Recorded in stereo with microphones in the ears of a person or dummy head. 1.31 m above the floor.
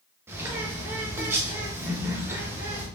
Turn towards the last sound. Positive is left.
turn(degrees=-10)  # may be behind; listen again after turning